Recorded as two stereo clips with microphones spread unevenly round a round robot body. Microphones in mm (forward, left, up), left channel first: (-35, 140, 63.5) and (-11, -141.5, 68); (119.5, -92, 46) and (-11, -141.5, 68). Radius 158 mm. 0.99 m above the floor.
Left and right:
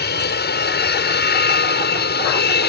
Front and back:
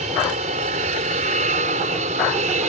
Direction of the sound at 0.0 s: 145° left.